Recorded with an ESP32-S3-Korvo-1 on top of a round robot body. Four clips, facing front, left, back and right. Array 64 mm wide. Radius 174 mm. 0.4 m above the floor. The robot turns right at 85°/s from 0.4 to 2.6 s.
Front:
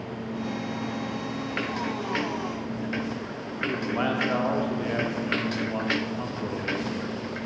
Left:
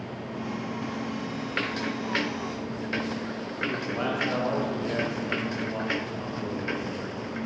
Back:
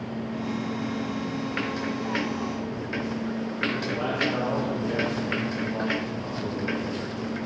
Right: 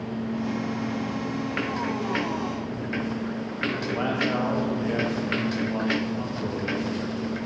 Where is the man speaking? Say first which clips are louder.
Right 2 dB, front 4 dB; 10° right, 1.6 m.